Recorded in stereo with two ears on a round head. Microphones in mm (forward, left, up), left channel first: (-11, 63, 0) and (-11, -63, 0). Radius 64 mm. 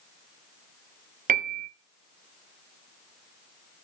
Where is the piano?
55° right (ahead or behind), 1.0 m.